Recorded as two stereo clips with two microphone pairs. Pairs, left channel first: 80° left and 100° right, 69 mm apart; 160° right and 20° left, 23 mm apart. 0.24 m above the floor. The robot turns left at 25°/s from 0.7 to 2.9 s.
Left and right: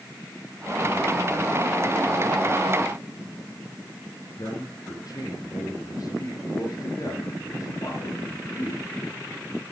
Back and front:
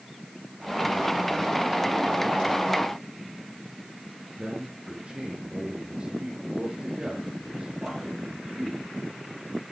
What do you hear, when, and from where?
4.4 s a man speaking: 55° left, 3.5 m